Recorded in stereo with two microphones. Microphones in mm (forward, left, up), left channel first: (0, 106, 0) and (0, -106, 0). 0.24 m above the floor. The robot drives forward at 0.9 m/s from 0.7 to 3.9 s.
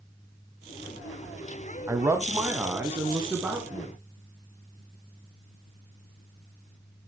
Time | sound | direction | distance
1.9 | a man speaking | 15° right (ahead or behind) | 1.2 m